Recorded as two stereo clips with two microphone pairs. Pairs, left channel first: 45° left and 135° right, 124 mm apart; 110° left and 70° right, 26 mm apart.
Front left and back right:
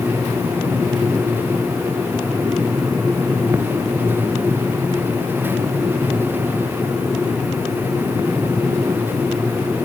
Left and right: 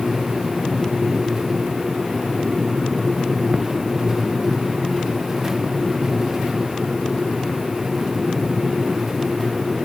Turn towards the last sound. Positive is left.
No sound to turn to.